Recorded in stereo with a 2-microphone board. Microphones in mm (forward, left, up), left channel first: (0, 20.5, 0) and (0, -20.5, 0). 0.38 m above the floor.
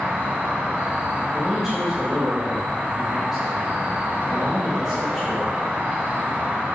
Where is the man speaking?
10° right (ahead or behind), 1.0 m.